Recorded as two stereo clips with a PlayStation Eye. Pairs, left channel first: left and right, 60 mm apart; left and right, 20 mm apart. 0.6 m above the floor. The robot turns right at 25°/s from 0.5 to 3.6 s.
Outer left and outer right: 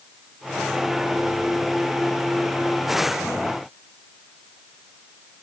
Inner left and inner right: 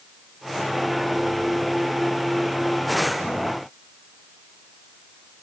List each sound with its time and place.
Only background noise.